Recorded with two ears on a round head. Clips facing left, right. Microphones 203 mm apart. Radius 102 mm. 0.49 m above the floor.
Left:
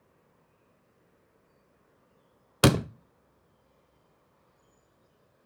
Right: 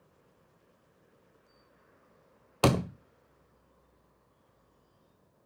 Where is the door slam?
20° left (ahead or behind), 0.6 m.